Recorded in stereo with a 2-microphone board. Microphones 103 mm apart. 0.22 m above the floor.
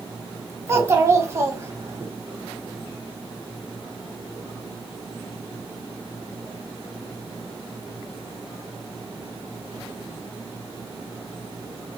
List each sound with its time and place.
0.7 s a child speaking: 25° right (ahead or behind), 0.8 m